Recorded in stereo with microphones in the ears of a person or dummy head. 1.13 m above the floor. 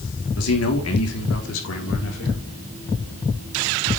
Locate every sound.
0.4 s a man speaking: 70° left (ahead or behind), 3 m; by 2.5 s 65° left (ahead or behind), 4 m